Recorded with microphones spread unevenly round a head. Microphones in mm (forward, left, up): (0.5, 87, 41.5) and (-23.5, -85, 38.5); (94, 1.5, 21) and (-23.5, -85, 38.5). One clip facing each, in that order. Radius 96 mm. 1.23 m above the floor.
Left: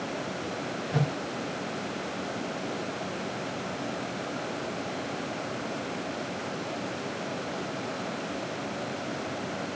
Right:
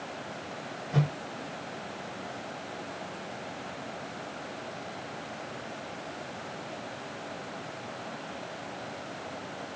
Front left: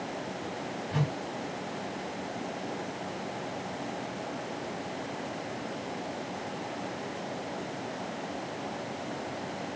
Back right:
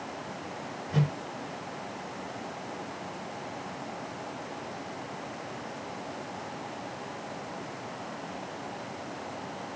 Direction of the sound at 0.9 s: 160° left.